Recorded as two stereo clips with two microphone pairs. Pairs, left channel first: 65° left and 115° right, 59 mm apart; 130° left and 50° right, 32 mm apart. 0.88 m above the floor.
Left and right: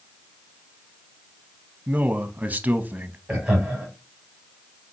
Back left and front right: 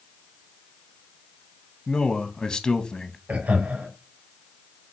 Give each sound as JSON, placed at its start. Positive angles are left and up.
{"t": 1.9, "sound": "a man speaking", "azimuth_deg": -175, "distance_m": 0.7}
{"t": 3.3, "sound": "laughter", "azimuth_deg": -40, "distance_m": 2.5}